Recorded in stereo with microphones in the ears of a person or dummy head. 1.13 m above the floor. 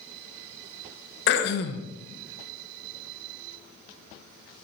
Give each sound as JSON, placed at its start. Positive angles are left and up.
{"t": 1.3, "sound": "throat clearing", "side_deg": 60, "distance_m": 1.1}